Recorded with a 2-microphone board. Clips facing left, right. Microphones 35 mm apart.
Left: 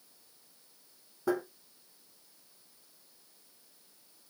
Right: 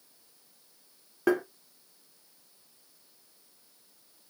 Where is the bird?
No bird in this recording.